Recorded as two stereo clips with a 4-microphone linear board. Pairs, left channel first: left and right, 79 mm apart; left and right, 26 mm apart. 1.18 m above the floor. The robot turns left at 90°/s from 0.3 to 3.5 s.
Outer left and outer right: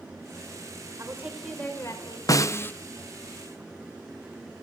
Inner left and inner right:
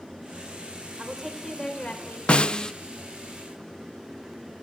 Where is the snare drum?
75° left, 0.9 m; by 2.7 s 35° left, 0.9 m.